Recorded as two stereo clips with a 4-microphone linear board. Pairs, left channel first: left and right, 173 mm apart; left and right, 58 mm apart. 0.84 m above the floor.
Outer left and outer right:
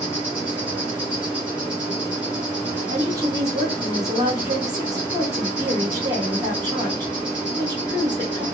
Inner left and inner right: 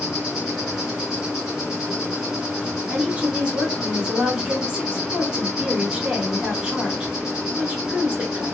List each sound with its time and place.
0.0 s an insect: 10° right (ahead or behind), 2.0 m
2.9 s a woman speaking: 20° right (ahead or behind), 2 m